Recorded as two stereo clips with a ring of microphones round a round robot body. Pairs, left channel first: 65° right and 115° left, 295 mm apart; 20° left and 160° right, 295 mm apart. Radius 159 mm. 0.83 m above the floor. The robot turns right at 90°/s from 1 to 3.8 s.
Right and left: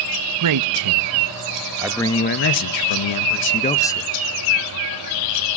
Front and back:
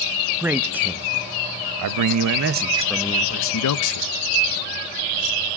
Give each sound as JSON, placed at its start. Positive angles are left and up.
{"t": 0.4, "sound": "a man speaking", "azimuth_deg": 120, "distance_m": 0.7}